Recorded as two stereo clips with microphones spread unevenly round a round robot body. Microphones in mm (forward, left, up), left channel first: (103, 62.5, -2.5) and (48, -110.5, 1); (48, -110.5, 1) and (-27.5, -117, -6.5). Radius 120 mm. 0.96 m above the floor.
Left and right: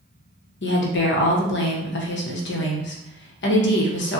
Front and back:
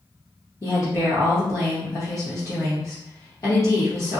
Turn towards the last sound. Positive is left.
turn(degrees=70)